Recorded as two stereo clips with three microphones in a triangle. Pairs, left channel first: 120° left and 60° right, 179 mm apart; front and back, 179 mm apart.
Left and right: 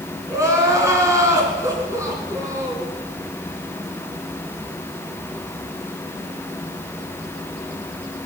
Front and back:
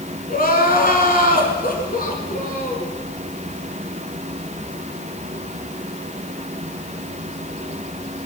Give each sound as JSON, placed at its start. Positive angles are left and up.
{"t": 0.3, "sound": "crying", "azimuth_deg": 10, "distance_m": 2.5}